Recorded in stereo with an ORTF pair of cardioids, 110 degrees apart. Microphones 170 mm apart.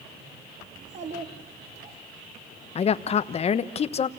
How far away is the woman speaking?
About 1.1 m.